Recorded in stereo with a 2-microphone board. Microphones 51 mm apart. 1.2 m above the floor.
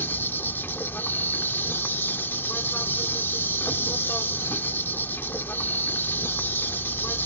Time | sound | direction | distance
0.0 | an insect | 45° left (ahead or behind) | ?